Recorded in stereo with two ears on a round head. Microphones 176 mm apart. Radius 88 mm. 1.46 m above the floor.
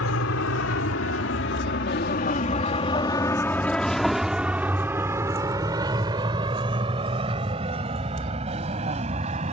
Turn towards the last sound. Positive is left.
turn(degrees=-35)  # may be behind; listen again after turning